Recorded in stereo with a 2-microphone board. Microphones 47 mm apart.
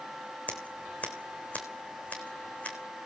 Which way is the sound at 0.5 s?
30° left (ahead or behind).